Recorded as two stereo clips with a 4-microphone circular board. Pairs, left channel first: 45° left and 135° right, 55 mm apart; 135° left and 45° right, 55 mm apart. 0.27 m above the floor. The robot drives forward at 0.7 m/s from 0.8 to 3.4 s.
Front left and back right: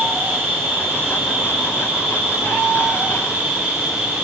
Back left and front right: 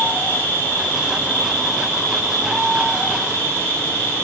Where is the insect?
175° right, 2 m.